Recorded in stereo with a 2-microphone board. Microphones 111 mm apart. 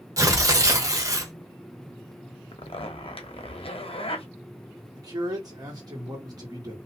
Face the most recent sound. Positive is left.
turn(degrees=-35)  # may be behind; listen again after turning